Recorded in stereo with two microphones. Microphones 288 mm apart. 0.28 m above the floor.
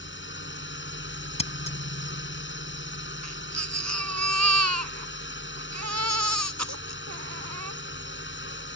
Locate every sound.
0.0 s a drone: 40° left (ahead or behind)
1.4 s scissors: 20° left (ahead or behind)
3.2 s a baby crying: 65° right (ahead or behind)